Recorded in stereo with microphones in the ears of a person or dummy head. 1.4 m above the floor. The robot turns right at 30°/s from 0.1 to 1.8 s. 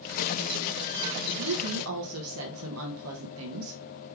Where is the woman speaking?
85° right, 1.1 m; by 3.8 s 80° right, 1.1 m.